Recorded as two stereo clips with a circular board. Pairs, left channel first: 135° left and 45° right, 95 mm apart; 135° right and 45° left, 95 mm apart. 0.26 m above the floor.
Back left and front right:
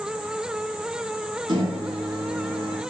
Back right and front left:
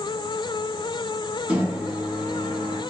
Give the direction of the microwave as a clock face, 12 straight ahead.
1 o'clock.